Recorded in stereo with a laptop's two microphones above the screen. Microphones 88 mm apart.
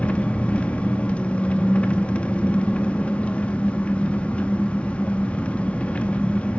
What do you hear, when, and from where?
0.0 s an engine running: 15° left (ahead or behind), 0.8 m